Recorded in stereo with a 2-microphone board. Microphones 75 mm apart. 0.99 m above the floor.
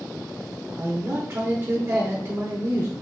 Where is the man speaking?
40° right (ahead or behind), 0.8 m.